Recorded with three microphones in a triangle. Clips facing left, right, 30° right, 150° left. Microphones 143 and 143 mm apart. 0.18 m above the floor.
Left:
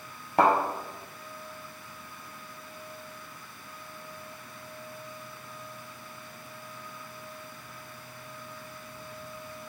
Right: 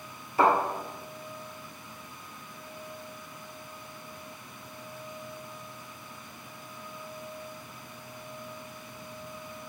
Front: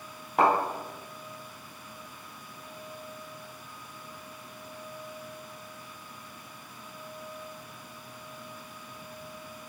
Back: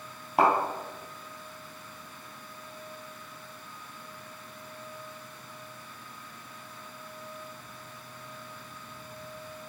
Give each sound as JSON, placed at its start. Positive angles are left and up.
{"t": 0.4, "sound": "a thud", "azimuth_deg": 65, "distance_m": 1.7}